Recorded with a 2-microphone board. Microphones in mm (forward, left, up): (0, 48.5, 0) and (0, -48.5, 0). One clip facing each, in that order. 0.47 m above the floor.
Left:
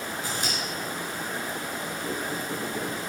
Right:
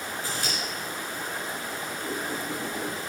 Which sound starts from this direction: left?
Scissors, at 0.2 s.